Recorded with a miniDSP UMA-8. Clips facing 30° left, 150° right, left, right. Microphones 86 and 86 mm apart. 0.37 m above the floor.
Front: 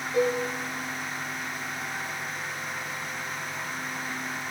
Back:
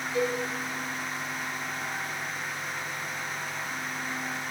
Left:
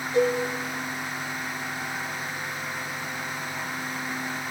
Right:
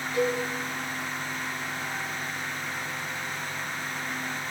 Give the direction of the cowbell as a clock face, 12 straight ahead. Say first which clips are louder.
Front 4 dB, left 4 dB; 11 o'clock.